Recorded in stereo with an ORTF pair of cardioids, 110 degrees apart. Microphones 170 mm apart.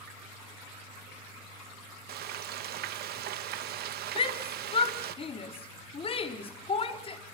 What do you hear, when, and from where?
2.1 s frying: 65° right, 1.2 m
4.2 s a shout: 35° left, 4 m